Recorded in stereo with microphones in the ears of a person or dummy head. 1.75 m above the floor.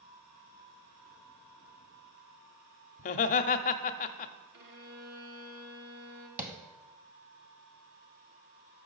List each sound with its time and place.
3.0 s laughter: 45° left (ahead or behind), 0.5 m
4.5 s a violin: 70° right (ahead or behind), 1.3 m
6.4 s tapping: 15° right (ahead or behind), 0.8 m